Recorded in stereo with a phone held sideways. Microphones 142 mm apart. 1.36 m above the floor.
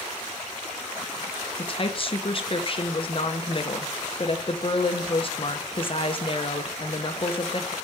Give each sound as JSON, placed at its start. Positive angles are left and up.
{"t": 1.6, "sound": "a woman speaking", "side_deg": 40, "distance_m": 1.3}